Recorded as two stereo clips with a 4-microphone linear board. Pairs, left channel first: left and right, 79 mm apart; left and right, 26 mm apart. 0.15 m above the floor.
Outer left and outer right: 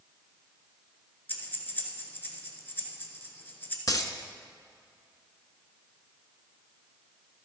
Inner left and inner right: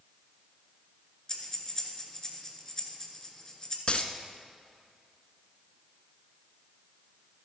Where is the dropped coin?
50° left (ahead or behind), 0.7 m.